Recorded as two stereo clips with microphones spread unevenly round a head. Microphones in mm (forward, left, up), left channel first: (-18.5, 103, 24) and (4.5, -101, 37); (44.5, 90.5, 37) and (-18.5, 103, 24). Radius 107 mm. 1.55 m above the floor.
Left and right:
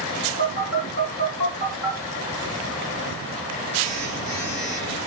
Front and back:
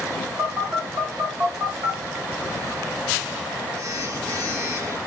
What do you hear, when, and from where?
0.4 s a phone buzzing: 130° left, 3.5 m